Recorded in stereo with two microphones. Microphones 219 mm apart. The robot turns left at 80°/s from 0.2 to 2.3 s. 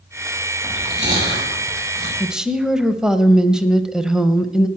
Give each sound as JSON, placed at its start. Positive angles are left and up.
{"t": 0.6, "sound": "chewing", "side_deg": 0, "distance_m": 8.0}
{"t": 2.2, "sound": "a woman speaking", "side_deg": 0, "distance_m": 0.9}